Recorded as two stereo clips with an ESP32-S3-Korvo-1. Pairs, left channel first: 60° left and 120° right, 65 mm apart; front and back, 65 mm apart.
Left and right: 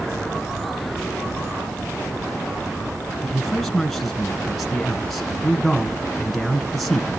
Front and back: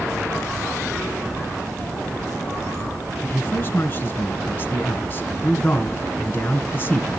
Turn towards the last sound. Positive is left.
turn(degrees=-25)